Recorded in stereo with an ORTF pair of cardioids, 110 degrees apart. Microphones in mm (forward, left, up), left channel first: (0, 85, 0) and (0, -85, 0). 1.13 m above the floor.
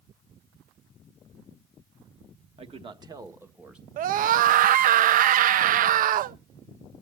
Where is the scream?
55° right, 0.6 m.